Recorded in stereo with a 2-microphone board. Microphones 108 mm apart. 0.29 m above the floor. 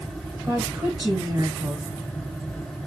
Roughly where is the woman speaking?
Right.